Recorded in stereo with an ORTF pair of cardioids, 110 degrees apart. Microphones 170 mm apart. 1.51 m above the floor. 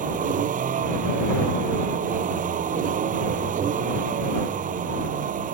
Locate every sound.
0.0 s a vehicle: 50° right